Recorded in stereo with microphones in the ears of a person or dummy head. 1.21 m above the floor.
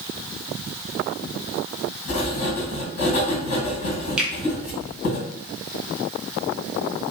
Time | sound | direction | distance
2.1 | writing | 60° left (ahead or behind) | 1.8 m
4.2 | a finger snap | centre (ahead or behind) | 0.5 m